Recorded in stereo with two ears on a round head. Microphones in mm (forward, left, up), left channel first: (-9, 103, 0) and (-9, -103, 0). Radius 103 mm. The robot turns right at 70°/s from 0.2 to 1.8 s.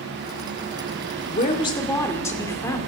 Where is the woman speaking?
130° left, 1.7 m; by 2.8 s 165° left, 1.7 m.